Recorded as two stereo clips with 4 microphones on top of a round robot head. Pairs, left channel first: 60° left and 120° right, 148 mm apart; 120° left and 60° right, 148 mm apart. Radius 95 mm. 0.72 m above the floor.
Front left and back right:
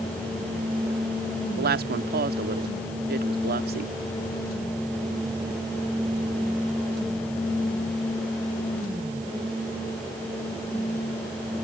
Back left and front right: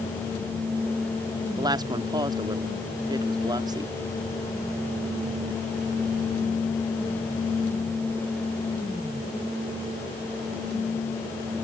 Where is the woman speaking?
125° right.